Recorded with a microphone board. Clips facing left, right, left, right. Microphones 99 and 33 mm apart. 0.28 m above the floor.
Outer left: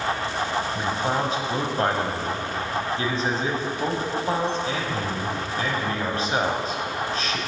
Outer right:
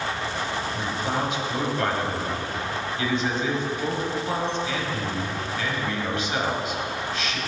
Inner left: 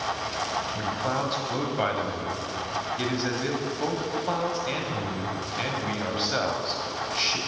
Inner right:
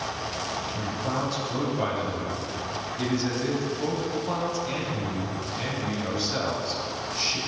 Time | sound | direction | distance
0.8 | a man speaking | 40° left (ahead or behind) | 1.4 m